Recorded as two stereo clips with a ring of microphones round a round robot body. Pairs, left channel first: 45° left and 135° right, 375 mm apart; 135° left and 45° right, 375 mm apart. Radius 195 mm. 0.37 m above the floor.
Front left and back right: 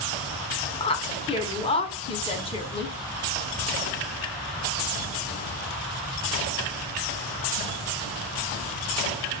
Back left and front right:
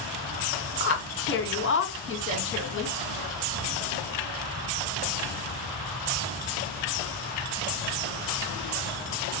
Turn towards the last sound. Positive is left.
turn(degrees=110)